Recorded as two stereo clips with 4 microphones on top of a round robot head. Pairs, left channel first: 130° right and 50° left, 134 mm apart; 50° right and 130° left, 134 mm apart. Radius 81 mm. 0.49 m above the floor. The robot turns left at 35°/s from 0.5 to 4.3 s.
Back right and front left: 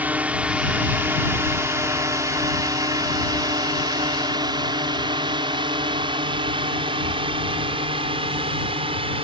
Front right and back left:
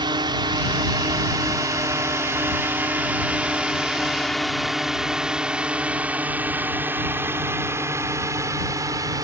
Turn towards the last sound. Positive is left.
turn(degrees=75)